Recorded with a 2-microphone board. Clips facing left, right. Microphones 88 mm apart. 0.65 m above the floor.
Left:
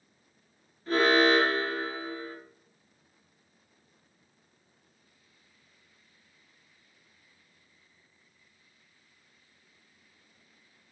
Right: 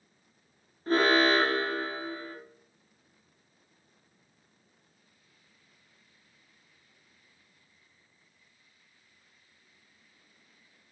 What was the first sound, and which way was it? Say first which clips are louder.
An alarm: left 1 dB; 40° right (ahead or behind).